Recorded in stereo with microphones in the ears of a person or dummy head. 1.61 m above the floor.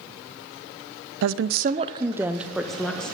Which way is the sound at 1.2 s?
75° right (ahead or behind).